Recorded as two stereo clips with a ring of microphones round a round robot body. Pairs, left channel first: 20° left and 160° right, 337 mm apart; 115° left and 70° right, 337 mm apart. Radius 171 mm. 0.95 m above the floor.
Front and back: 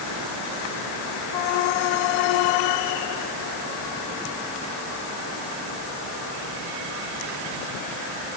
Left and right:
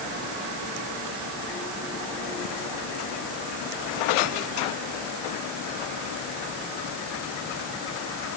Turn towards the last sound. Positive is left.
No sound to turn to.